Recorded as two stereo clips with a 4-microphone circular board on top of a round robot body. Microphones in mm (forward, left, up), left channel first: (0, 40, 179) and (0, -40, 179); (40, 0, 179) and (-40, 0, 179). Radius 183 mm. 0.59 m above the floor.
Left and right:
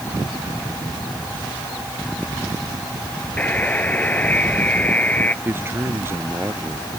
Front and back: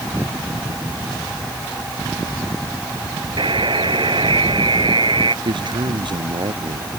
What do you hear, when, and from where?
3.4 s a buzzer: 160° left
5.5 s a man speaking: 150° right